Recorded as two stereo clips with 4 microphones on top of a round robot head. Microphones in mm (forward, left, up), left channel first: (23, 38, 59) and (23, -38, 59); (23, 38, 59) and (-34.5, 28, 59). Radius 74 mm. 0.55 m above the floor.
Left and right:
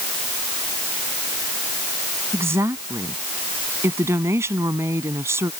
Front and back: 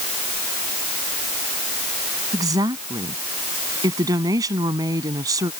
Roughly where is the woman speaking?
Behind right.